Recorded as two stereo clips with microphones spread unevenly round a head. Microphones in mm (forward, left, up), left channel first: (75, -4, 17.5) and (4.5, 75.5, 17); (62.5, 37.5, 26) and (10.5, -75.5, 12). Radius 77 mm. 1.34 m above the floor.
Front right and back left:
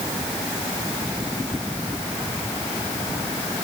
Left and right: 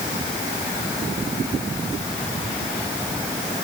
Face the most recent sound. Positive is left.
No sound to turn to.